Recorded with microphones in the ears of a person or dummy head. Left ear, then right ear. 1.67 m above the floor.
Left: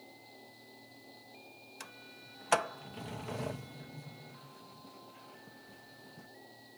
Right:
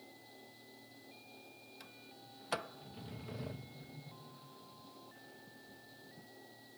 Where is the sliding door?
35° left (ahead or behind).